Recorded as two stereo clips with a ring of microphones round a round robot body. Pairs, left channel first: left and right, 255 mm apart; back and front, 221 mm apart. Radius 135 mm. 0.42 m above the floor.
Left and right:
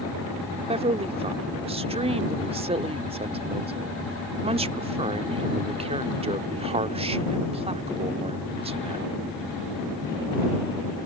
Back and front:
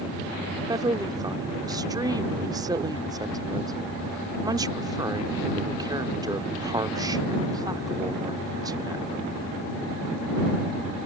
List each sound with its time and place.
0.7 s a woman speaking: 50° right